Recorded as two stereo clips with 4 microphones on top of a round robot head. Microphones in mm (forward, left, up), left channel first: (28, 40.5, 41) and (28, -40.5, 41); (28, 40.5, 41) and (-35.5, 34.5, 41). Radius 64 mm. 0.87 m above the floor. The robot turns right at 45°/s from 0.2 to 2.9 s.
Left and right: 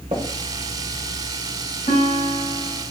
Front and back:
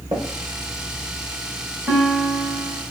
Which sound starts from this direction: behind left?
A guitar, at 1.9 s.